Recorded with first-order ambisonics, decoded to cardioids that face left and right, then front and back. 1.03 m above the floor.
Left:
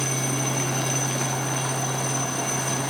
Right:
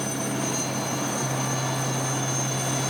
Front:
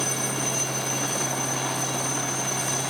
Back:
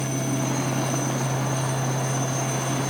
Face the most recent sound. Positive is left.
No sound to turn to.